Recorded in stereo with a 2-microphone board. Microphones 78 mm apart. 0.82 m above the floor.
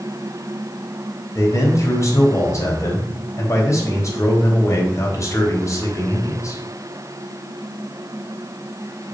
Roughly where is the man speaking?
Left.